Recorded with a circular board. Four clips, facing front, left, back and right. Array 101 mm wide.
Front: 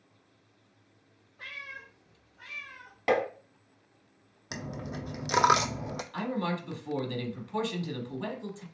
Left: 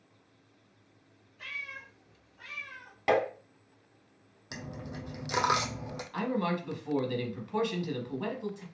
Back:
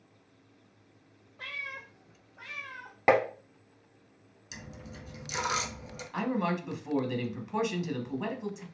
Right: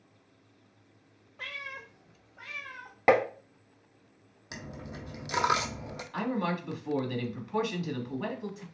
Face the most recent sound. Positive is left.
turn(degrees=-175)